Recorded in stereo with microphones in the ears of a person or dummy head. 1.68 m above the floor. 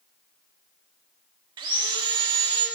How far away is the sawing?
About 1.3 m.